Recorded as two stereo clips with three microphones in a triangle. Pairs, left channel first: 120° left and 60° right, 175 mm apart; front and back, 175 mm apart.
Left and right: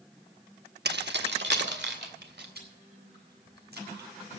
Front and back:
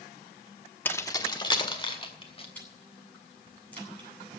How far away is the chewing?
About 8.5 m.